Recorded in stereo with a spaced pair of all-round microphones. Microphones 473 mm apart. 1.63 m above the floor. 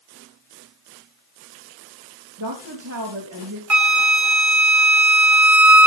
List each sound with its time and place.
2.4 s a woman speaking: 40° right (ahead or behind), 3 m
3.7 s a flute: 40° right (ahead or behind), 0.8 m